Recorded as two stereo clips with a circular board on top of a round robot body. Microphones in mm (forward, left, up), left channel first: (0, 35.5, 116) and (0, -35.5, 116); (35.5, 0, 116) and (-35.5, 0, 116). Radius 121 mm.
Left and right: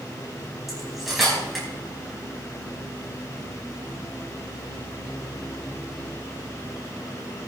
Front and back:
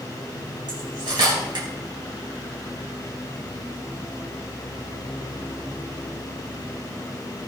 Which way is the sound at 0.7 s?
Straight behind.